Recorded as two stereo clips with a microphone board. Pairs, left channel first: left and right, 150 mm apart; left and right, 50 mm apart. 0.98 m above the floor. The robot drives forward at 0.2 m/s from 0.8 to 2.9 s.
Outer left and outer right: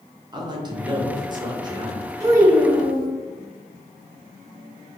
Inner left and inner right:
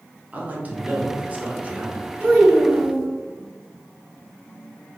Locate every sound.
0.3 s a man speaking: 30° right (ahead or behind), 0.7 m; by 2.1 s 25° right (ahead or behind), 0.7 m
2.2 s a child speaking: 20° right (ahead or behind), 1.8 m; by 3.1 s 15° right (ahead or behind), 1.9 m